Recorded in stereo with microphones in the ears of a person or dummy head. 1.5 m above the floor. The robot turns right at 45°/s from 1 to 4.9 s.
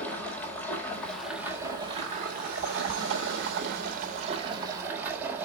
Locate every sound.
0.0 s running water: 170° left, 1.8 m; by 5.5 s 10° right, 1.8 m